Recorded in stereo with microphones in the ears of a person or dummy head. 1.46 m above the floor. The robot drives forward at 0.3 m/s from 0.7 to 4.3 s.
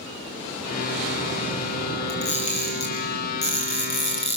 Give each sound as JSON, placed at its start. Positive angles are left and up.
{"t": 2.1, "sound": "a camera shutter", "side_deg": 35, "distance_m": 5.0}